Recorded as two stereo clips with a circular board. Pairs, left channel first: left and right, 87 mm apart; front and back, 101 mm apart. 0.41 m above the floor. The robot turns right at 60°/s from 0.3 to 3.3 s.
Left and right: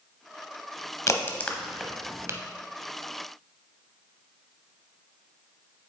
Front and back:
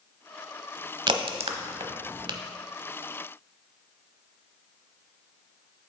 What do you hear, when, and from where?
1.1 s a crack: 140° left, 0.7 m; by 2.4 s 140° right, 0.7 m